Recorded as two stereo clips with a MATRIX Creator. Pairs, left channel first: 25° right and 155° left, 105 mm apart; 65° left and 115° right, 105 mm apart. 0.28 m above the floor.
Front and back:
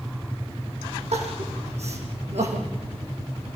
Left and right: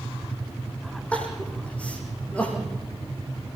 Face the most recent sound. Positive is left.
turn(degrees=145)